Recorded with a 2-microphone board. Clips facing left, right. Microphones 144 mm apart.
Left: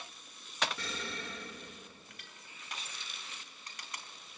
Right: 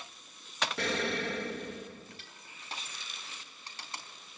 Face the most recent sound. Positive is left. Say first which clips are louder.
# right 3 dB
turn(degrees=-30)  # may be behind; listen again after turning